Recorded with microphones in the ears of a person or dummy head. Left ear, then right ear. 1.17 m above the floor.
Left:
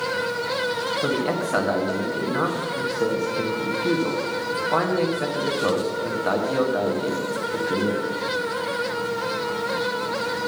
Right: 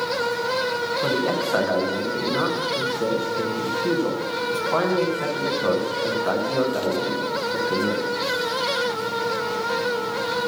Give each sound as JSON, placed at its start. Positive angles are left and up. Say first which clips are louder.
{"t": 1.0, "sound": "a man speaking", "louder": "right 1 dB", "side_deg": 5, "distance_m": 1.1}